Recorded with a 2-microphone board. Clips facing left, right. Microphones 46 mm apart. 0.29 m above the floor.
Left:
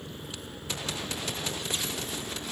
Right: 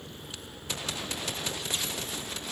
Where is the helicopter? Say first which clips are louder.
Left 3 dB; 5° left (ahead or behind); by 2.5 s 10° left (ahead or behind).